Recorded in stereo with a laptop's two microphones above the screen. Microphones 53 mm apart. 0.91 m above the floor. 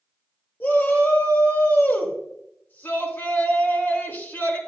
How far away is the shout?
About 3.5 m.